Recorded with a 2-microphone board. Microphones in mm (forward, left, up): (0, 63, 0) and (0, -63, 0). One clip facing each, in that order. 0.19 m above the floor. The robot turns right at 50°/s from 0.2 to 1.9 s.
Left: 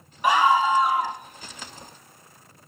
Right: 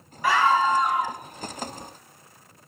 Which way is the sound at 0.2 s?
20° left (ahead or behind).